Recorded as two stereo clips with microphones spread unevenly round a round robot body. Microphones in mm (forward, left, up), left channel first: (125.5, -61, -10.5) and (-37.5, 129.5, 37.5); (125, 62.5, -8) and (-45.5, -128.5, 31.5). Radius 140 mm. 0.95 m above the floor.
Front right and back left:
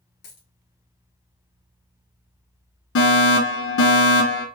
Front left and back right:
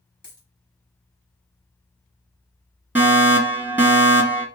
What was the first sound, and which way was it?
A dropped coin, 25° right.